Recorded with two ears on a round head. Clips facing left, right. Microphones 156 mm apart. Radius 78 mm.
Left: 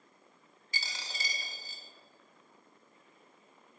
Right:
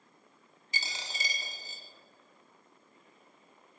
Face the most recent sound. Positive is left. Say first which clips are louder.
# right 2 dB
turn(degrees=-15)  # may be behind; listen again after turning